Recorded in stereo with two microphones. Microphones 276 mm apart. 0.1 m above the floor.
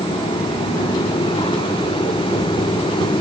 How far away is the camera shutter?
No camera shutter in this recording.